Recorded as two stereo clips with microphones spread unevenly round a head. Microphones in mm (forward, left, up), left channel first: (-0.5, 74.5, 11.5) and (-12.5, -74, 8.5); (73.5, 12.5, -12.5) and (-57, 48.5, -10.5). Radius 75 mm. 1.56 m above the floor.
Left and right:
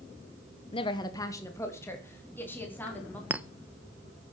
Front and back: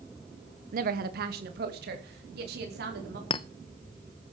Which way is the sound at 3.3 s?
20° right.